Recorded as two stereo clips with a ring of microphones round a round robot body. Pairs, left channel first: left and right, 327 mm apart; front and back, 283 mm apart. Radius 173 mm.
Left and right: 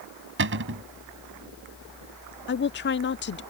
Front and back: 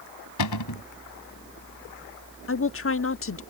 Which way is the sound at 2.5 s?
35° left.